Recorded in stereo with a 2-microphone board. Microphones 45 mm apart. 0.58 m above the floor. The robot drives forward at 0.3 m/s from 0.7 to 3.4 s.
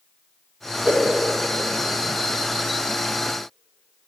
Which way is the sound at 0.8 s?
15° right (ahead or behind).